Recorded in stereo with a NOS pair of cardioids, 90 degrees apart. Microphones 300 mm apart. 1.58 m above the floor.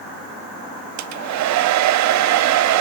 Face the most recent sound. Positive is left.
turn(degrees=-65)